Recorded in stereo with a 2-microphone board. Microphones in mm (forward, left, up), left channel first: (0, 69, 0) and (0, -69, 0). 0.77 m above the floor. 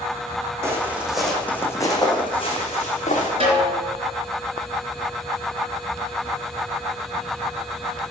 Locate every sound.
0.6 s footsteps: 20° right (ahead or behind), 2.5 m; by 3.3 s 60° left (ahead or behind), 3.5 m
3.4 s a snare drum: 45° right (ahead or behind), 3.5 m